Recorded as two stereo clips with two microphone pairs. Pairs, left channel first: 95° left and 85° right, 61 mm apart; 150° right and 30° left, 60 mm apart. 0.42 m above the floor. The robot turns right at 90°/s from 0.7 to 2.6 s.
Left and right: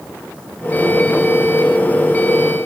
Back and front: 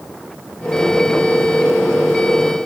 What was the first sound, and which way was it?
Only background noise.